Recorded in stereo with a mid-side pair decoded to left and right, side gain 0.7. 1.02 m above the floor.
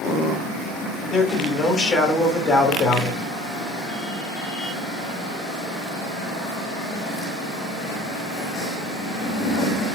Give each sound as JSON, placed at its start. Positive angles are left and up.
{"t": 1.1, "sound": "a man speaking", "azimuth_deg": 30, "distance_m": 2.0}